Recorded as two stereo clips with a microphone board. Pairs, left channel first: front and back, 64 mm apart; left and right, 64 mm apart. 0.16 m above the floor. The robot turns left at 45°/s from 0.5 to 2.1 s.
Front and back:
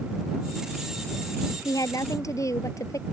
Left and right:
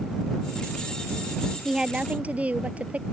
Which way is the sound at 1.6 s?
5° right.